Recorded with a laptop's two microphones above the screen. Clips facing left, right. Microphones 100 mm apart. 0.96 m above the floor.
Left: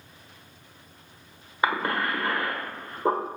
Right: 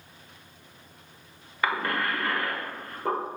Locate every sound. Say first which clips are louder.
1.6 s a cough: left 2 dB; 25° left (ahead or behind), 1.1 m